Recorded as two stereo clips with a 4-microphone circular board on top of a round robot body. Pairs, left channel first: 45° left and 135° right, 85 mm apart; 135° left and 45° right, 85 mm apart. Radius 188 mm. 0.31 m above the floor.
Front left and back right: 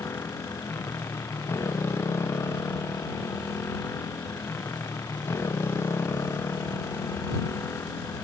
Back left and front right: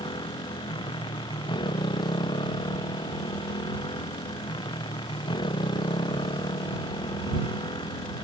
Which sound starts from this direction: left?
A motorcycle, at 0.0 s.